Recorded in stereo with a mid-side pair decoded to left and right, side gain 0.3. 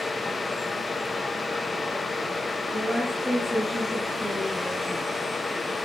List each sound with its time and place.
0.0 s a fan: 35° left, 0.9 m
2.7 s a woman speaking: 5° left, 7 m